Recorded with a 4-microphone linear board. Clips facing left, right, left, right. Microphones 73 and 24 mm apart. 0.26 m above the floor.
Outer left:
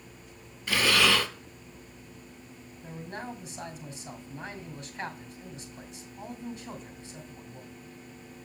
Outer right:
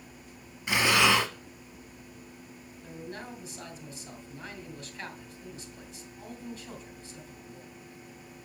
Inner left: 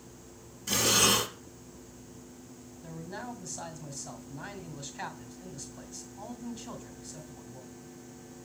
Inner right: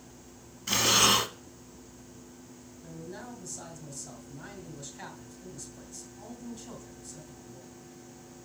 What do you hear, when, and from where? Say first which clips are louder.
0.7 s breathing: outer right 1 dB, inner right 2 dB; 20° right (ahead or behind), 0.8 m
2.8 s a man speaking: outer left 2 dB, inner left 2 dB; 20° left (ahead or behind), 2 m